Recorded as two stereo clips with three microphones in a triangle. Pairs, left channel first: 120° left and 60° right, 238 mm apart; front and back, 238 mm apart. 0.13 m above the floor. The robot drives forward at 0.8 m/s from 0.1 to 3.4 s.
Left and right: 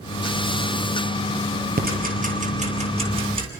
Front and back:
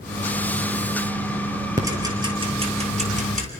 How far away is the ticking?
About 3 m.